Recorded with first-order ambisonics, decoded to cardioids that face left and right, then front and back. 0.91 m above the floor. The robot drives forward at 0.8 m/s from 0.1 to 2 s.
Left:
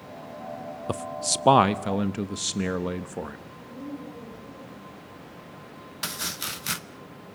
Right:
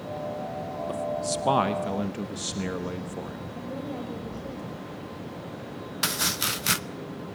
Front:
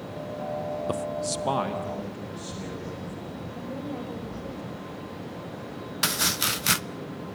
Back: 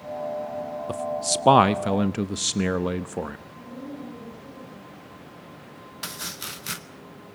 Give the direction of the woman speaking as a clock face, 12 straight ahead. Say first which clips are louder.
Right 4 dB, front 4 dB; 2 o'clock.